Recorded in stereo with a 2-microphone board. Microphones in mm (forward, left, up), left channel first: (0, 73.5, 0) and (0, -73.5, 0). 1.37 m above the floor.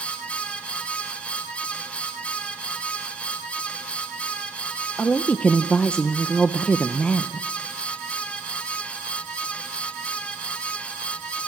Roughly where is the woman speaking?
Centre.